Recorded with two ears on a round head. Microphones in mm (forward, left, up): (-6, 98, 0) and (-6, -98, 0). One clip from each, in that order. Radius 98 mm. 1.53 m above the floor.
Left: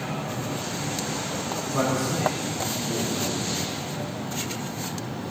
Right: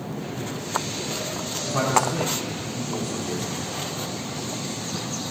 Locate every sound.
1.6 s a man speaking: 80° right, 5 m